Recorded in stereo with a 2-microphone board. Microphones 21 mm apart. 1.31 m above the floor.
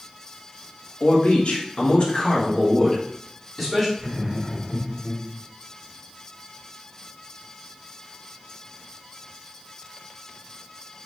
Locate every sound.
1.0 s a man speaking: 80° left, 1.5 m; by 3.9 s 5° left (ahead or behind), 2 m
4.0 s laughter: 5° left (ahead or behind), 2.0 m